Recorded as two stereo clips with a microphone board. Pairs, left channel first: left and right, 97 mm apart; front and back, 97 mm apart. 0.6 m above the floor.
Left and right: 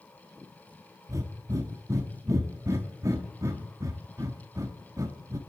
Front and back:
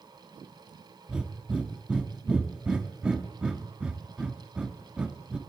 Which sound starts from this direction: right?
Breathing, at 1.1 s.